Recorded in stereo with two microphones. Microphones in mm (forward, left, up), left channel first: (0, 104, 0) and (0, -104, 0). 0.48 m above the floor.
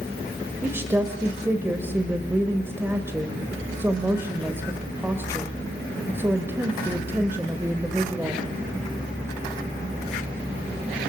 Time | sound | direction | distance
0.6 | a woman speaking | 10° right (ahead or behind) | 2.5 m